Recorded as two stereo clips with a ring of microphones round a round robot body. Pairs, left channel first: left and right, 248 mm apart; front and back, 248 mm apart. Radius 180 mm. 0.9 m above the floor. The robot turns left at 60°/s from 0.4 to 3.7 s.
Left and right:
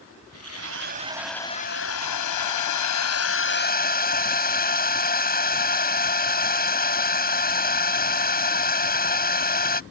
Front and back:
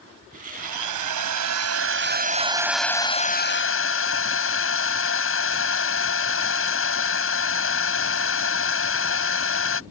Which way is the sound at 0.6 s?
135° right.